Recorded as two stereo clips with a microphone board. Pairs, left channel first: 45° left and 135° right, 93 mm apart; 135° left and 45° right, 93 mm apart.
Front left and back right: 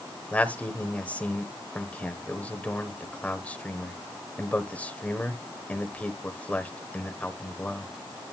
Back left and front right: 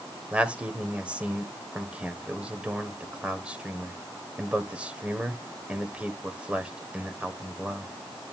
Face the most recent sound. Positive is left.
turn(degrees=10)